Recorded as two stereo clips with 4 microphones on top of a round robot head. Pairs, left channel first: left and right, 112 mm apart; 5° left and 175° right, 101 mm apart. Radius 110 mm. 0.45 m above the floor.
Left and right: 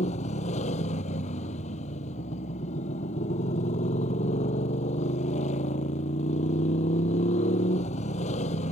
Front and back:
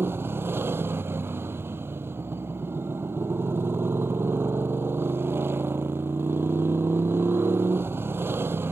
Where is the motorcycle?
120° left.